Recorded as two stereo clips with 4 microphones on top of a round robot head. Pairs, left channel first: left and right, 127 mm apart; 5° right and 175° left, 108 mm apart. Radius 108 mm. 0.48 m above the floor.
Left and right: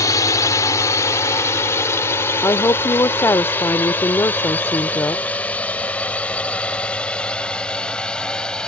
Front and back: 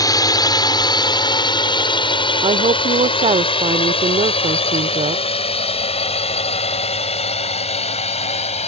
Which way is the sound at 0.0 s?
35° left.